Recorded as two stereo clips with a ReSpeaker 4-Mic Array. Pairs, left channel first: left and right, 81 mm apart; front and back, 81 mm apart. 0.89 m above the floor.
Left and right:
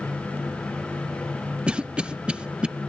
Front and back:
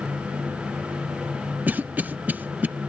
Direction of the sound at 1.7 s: 145° right.